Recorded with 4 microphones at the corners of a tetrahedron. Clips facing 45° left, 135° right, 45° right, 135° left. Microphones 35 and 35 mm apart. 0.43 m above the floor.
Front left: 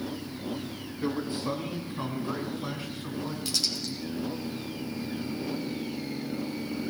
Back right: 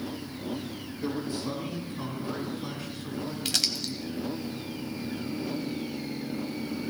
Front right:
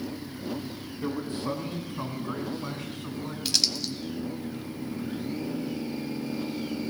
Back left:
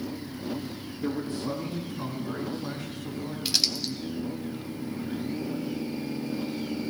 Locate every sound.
1.0 s a man speaking: 5° right, 3.5 m; by 3.4 s 25° right, 4.5 m
3.5 s crumpling: 145° right, 0.9 m